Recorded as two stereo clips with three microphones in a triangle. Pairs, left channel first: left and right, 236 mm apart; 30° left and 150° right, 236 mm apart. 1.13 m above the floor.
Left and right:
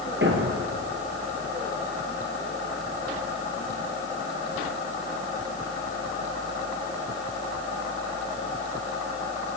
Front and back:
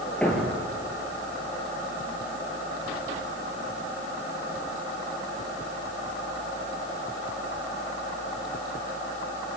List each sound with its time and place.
0.2 s a thud: 55° right, 4 m